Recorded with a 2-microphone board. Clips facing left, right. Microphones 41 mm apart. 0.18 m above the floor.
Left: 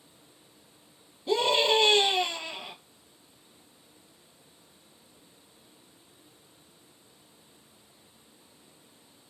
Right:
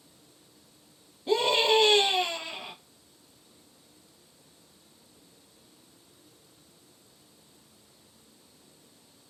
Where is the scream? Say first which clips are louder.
Even; 25° right (ahead or behind), 1.7 m.